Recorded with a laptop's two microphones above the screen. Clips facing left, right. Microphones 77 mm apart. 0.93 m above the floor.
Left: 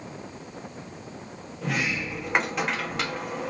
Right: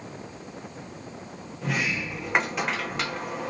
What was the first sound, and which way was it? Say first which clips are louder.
A sliding door: even; centre (ahead or behind).